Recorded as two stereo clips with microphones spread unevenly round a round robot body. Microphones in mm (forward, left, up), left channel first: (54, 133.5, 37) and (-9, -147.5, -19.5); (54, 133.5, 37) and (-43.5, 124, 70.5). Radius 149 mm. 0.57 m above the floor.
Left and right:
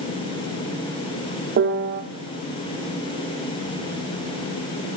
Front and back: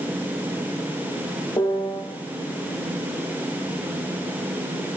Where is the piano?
50° right, 0.5 m.